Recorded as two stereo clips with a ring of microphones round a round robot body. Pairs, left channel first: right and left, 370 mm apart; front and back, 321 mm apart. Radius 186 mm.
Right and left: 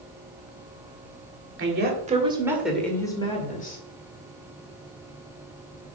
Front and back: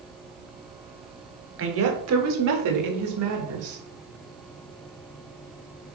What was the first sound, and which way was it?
A woman speaking, 140° left.